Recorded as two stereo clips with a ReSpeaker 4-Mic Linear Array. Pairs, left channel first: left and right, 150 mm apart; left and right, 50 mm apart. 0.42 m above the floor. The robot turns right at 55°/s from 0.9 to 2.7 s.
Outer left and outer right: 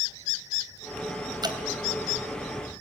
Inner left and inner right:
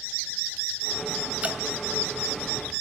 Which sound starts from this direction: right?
Dripping, at 1.4 s.